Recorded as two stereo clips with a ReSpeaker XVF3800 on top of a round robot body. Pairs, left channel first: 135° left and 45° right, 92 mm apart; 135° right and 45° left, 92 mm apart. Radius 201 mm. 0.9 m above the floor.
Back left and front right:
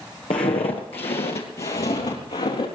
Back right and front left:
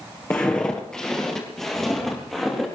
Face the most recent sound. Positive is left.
turn(degrees=135)